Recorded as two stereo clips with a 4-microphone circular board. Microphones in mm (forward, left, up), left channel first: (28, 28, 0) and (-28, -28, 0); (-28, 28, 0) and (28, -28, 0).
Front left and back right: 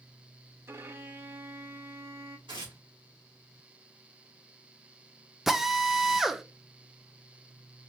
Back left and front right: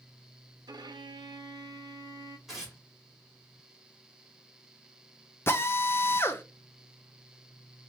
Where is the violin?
75° right, 0.5 m.